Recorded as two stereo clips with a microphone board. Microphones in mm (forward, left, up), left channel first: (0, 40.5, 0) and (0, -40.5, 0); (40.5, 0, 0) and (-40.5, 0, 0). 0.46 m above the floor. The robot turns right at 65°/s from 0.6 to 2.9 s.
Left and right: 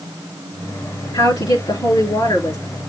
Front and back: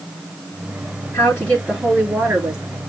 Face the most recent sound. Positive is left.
turn(degrees=165)